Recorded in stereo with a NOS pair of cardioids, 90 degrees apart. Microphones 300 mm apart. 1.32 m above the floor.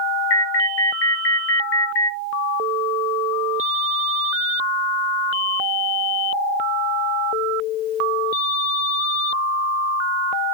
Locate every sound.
0.3 s an alarm: 50° left, 1.2 m